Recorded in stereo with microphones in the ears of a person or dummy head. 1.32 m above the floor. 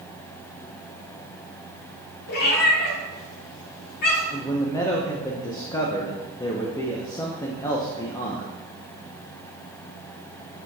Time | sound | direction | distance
2.3 | a cat meowing | 55° left (ahead or behind) | 1.9 m
4.3 | a man speaking | 20° left (ahead or behind) | 0.7 m